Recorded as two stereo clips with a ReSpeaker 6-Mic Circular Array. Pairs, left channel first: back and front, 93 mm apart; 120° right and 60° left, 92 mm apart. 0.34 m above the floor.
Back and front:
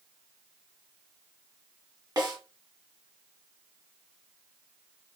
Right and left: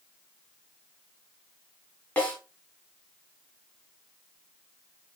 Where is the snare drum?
45° right, 1.9 m.